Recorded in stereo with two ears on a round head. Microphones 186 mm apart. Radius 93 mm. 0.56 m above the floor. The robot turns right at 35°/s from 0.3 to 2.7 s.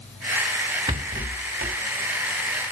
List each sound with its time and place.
0.9 s a rattle: 20° right (ahead or behind), 1.8 m; by 1.8 s 40° right (ahead or behind), 1.8 m